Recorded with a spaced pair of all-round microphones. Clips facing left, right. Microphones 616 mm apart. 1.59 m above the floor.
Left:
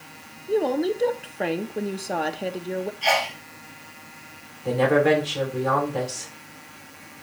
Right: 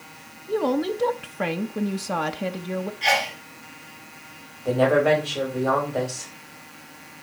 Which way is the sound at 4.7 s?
45° left (ahead or behind).